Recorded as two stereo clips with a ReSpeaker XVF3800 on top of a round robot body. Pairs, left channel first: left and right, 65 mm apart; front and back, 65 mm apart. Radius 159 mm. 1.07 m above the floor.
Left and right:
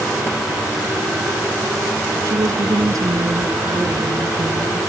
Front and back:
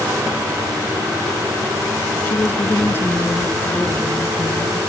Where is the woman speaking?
55° right.